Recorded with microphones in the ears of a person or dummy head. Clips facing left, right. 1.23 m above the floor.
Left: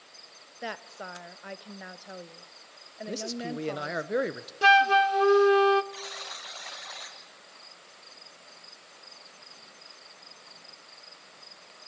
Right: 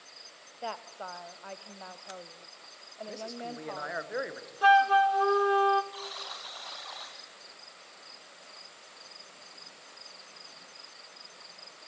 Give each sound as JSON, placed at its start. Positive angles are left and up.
{"t": 0.6, "sound": "a woman speaking", "side_deg": 25, "distance_m": 0.9}
{"t": 3.1, "sound": "a man speaking", "side_deg": 45, "distance_m": 0.9}
{"t": 4.6, "sound": "a flute", "side_deg": 35, "distance_m": 0.6}
{"t": 5.9, "sound": "a buzzer", "side_deg": 30, "distance_m": 2.5}